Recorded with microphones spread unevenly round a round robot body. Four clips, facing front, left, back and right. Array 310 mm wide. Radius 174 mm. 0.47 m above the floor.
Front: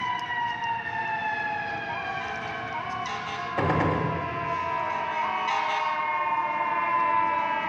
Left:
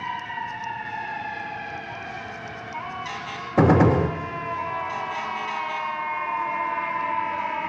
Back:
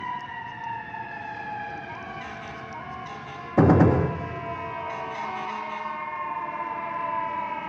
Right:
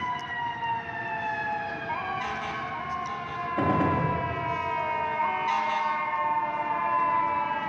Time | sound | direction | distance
3.6 | a gunshot | 115° left | 0.5 m